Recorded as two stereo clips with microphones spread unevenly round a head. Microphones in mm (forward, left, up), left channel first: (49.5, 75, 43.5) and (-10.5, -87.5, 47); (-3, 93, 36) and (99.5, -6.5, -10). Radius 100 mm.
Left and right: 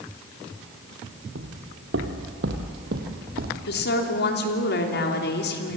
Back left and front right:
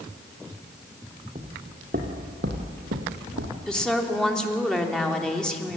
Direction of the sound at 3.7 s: 45° left.